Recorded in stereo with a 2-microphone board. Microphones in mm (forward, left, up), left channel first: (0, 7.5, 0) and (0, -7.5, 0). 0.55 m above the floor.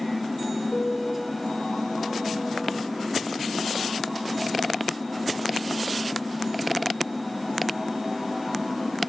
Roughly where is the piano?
Left.